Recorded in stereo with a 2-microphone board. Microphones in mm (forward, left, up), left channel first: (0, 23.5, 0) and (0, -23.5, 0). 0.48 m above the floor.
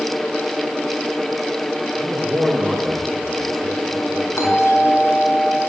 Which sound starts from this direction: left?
A doorbell, at 4.4 s.